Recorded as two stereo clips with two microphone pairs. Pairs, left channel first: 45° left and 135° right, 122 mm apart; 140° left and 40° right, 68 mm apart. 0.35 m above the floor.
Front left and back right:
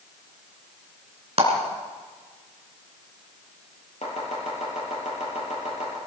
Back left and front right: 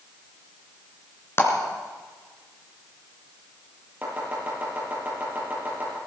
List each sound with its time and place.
1.4 s a clap: 165° right, 3 m
4.0 s chopping: 25° left, 7 m